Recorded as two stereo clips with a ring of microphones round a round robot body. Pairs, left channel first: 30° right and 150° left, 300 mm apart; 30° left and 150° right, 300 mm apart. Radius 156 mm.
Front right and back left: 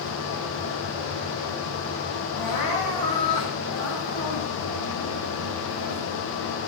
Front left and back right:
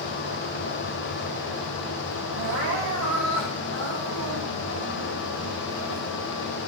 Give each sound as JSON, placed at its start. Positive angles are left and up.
{"t": 2.4, "sound": "crying", "azimuth_deg": -100, "distance_m": 4.0}